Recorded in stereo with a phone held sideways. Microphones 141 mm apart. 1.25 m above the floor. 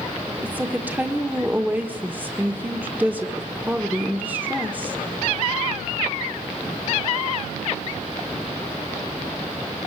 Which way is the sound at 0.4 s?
15° right (ahead or behind).